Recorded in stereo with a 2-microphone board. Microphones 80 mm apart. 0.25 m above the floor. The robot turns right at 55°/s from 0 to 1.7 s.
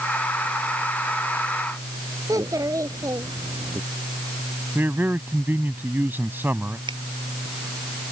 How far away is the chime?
I don't hear a chime.